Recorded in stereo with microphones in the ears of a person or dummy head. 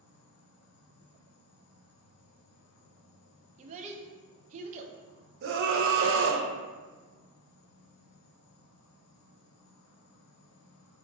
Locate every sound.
0.0 s an insect: 80° left, 0.7 m
3.6 s a child speaking: 35° right (ahead or behind), 0.6 m
5.4 s a scream: 60° right (ahead or behind), 0.6 m